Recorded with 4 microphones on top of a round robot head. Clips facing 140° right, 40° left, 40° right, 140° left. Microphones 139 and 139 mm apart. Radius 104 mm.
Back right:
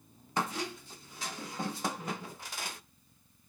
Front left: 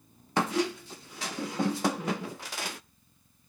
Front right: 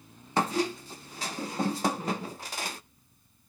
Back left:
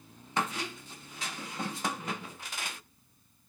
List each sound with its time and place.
0.4 s a squeak: 15° left, 0.5 m